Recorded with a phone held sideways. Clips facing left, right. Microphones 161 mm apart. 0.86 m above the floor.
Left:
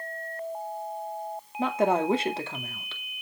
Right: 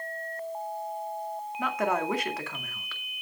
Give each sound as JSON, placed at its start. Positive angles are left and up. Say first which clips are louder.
{"t": 1.6, "sound": "a woman speaking", "louder": "left 5 dB", "side_deg": 30, "distance_m": 2.0}